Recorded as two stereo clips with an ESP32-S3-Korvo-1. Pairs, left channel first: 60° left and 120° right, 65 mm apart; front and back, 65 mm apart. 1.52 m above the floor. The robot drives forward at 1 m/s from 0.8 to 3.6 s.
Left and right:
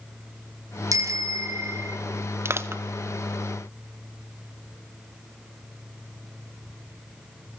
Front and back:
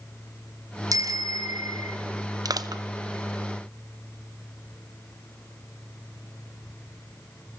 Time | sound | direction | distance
0.9 | a bicycle bell | 155° right | 2.5 m
2.5 | crushing | 170° right | 1.3 m